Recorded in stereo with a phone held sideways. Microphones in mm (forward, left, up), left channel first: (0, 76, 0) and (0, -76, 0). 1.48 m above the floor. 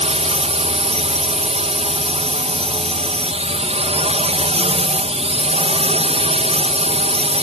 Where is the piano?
I don't hear a piano.